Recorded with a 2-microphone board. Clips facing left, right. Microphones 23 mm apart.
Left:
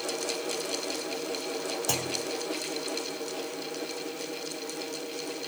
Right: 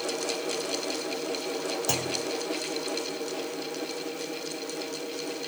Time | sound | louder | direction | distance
1.9 | a clunk | right 1 dB | centre (ahead or behind) | ?